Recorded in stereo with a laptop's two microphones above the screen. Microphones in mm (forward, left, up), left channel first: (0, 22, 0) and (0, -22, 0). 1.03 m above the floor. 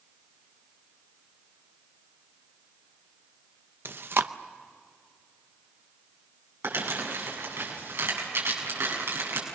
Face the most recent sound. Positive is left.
turn(degrees=-80)